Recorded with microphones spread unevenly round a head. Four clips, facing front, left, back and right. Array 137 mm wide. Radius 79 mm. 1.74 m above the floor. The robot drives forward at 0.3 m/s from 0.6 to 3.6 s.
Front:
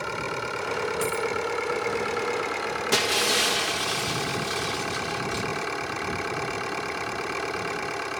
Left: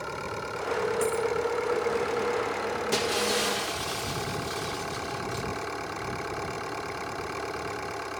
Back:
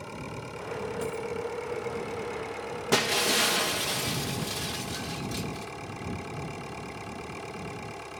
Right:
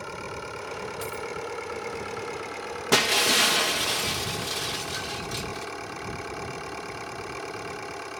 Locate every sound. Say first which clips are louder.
0.0 s an engine running: left 2 dB, front 9 dB; 5° left
1.0 s a dropped coin: left 7 dB, front 6 dB; 55° left; by 1.3 s 65° left
2.9 s breaking glass: right 6 dB, back 1 dB; 95° right; by 5.7 s 120° right